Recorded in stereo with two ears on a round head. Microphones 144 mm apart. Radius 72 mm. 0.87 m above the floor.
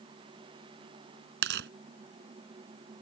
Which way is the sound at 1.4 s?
75° right (ahead or behind).